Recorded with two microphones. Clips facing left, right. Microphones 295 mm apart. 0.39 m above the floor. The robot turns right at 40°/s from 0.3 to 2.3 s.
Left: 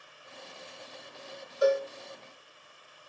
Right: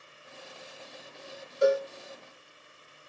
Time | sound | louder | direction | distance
1.6 | a cowbell | right 1 dB | 30° right (ahead or behind) | 1.4 m